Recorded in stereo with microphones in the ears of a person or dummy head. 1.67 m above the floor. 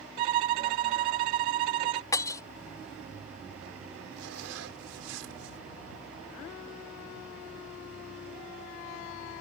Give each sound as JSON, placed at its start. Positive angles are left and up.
{"t": 0.2, "sound": "a violin", "side_deg": -30}
{"t": 2.1, "sound": "breaking glass", "side_deg": 15}
{"t": 4.2, "sound": "a zipper", "side_deg": -80}